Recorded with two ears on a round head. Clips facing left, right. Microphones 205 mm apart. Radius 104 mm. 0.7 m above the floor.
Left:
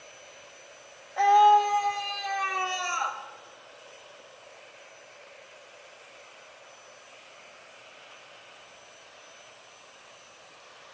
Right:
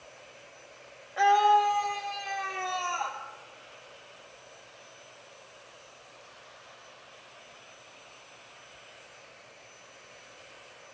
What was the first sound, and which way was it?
A scream, 20° right (ahead or behind).